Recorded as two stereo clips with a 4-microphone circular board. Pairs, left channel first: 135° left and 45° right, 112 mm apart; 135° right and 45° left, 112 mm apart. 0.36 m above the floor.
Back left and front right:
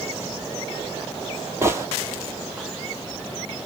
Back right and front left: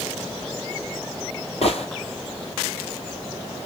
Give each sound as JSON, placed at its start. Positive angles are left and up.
{"t": 1.6, "sound": "a gunshot", "azimuth_deg": -110, "distance_m": 1.5}